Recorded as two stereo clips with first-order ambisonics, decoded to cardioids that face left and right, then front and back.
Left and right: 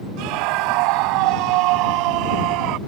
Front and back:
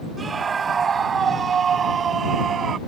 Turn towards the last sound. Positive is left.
turn(degrees=-120)